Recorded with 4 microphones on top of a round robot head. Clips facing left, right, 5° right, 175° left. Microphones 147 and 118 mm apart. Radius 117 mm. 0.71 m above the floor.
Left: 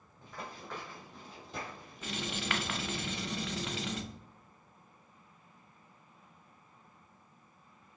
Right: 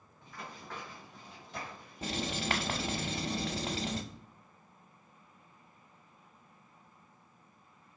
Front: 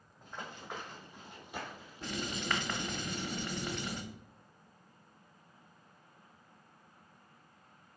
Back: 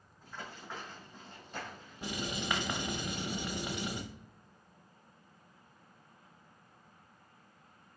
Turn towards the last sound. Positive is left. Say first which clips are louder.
# right 3 dB, back 1 dB
turn(degrees=-120)